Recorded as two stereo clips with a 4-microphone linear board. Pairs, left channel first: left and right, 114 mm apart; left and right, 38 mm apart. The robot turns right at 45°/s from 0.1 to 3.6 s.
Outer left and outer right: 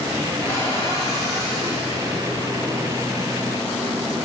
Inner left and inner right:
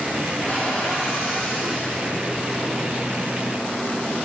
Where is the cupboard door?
35° left, 6.5 m; by 1.9 s 105° left, 6.5 m.